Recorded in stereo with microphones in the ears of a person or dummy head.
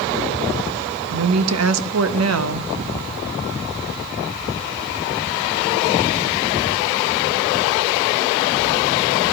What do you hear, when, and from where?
1.1 s a woman speaking: 80° right, 1.2 m